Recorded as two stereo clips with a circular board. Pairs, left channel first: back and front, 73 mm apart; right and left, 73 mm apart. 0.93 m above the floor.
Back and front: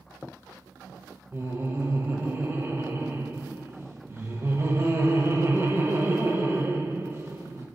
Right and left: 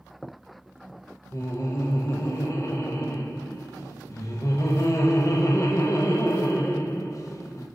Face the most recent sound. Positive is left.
turn(degrees=-55)